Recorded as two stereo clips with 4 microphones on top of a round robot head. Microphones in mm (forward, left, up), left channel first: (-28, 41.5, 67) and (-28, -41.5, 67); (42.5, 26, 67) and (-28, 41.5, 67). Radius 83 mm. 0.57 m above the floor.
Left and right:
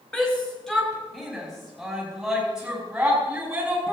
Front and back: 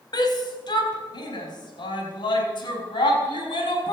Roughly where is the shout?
Ahead.